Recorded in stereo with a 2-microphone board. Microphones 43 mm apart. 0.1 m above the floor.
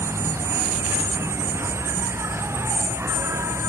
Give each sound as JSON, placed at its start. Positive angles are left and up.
{"t": 0.0, "sound": "an insect", "side_deg": -85}